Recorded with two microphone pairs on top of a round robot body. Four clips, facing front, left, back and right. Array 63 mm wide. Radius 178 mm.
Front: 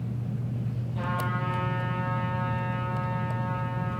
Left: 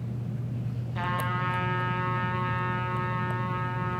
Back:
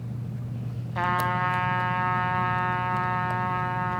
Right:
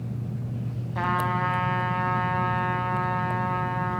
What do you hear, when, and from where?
0.9 s a trumpet: 160° right, 1.7 m